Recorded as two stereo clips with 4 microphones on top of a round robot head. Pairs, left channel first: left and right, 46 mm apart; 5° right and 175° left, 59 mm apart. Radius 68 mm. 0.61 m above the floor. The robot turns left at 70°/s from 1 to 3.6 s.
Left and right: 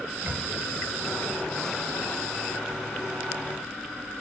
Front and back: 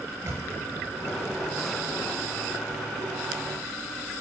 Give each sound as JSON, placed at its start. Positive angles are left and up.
{"t": 0.2, "sound": "a microwave", "azimuth_deg": -140, "distance_m": 3.0}